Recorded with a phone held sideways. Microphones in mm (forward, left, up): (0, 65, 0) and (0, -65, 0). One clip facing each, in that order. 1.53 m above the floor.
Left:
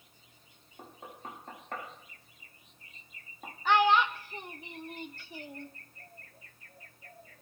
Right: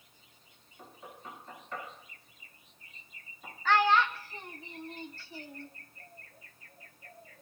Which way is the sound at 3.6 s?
20° left (ahead or behind).